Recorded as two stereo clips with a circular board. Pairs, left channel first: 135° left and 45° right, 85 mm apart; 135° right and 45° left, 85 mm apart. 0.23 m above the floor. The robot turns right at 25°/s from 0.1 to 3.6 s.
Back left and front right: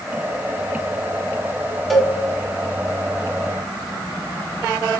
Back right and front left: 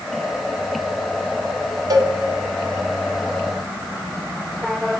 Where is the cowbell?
45° left, 0.6 m; by 2.1 s 50° left, 0.6 m.